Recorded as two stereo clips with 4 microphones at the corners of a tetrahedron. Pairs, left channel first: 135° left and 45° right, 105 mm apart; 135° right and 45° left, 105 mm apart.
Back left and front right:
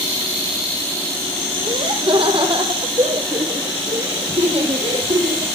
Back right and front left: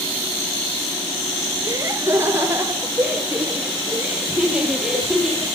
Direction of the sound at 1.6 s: 15° right.